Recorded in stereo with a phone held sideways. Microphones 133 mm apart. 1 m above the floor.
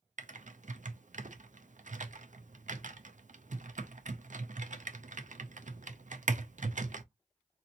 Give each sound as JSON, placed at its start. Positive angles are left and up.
{"t": 0.2, "sound": "typing on a keyboard", "side_deg": -70, "distance_m": 0.5}